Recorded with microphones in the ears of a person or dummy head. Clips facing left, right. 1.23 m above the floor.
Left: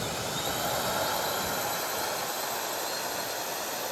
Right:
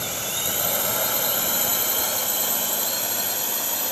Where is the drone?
40° right (ahead or behind); by 3.9 s 50° right (ahead or behind).